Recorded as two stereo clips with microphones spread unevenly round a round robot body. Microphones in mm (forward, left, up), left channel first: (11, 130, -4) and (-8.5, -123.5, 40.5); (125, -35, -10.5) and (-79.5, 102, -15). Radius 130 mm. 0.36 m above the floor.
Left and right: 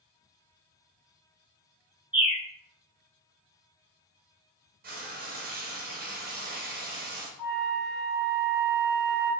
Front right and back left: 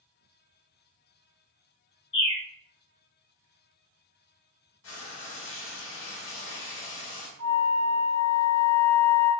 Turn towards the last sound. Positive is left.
turn(degrees=115)